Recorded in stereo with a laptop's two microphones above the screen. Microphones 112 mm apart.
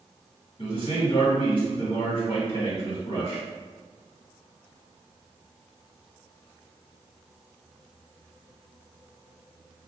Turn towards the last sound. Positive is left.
turn(degrees=45)  # may be behind; listen again after turning